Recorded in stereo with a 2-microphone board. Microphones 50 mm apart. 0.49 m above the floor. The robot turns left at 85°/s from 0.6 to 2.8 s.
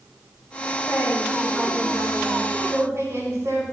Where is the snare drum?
I don't hear a snare drum.